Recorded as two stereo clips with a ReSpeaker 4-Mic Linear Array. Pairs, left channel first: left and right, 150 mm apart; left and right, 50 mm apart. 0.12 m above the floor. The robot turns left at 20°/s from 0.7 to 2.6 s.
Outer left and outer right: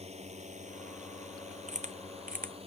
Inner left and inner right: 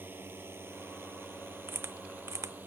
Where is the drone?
45° right (ahead or behind); by 2.7 s 40° right (ahead or behind).